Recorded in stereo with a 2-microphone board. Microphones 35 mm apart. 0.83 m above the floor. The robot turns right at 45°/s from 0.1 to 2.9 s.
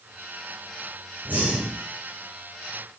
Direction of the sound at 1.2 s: 50° right (ahead or behind).